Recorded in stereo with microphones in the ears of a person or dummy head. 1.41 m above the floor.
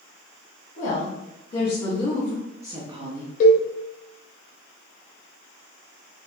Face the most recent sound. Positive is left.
turn(degrees=50)  # may be behind; listen again after turning